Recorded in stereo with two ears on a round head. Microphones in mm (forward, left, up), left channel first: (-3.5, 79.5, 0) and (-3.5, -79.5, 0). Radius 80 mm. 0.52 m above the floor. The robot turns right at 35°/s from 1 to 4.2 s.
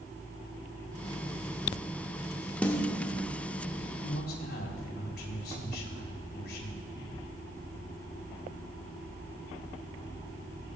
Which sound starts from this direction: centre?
A snare drum, at 2.6 s.